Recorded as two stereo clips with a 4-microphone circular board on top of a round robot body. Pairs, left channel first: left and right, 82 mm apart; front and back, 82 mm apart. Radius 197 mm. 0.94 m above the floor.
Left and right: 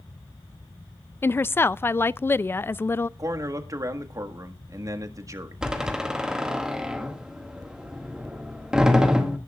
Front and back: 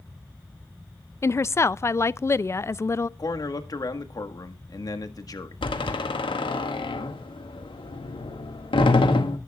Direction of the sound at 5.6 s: 10° right.